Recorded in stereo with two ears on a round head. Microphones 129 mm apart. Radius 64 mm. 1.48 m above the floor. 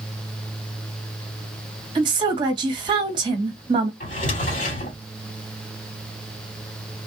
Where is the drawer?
55° left (ahead or behind), 2.5 m.